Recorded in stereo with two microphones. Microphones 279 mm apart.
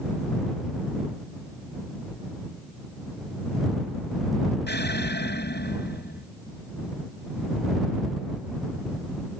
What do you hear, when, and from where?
4.7 s an explosion: 40° left (ahead or behind)